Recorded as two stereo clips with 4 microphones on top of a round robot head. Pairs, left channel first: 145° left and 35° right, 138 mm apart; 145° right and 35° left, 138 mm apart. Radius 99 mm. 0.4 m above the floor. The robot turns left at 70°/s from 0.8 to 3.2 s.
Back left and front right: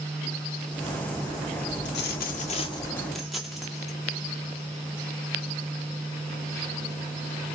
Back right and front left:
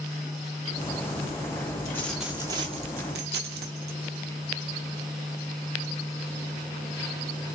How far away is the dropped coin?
About 0.6 m.